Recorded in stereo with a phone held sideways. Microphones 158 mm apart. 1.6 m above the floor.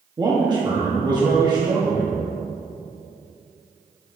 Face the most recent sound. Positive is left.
turn(degrees=-25)  # may be behind; listen again after turning